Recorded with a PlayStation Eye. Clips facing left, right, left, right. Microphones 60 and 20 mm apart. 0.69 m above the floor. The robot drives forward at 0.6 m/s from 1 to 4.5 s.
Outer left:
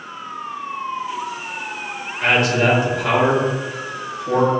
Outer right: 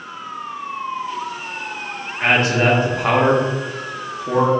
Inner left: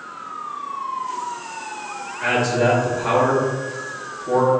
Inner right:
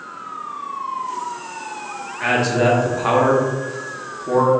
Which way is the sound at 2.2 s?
30° right (ahead or behind).